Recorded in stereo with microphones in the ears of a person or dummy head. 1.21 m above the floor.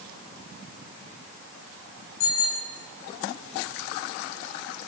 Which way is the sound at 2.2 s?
75° left (ahead or behind).